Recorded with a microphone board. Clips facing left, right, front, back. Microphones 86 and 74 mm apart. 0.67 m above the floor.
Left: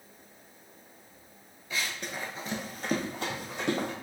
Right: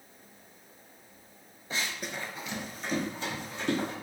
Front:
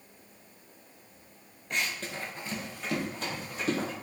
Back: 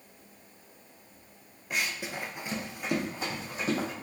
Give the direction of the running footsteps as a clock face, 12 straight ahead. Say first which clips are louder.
Even, even; 3 o'clock.